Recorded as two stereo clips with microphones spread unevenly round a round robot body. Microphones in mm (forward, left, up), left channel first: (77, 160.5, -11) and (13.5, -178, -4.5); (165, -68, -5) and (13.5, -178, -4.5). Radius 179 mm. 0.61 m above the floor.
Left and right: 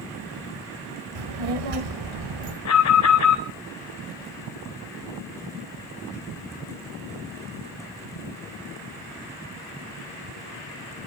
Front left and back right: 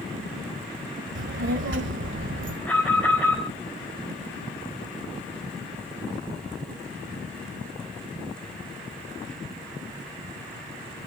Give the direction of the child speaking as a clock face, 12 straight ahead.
4 o'clock.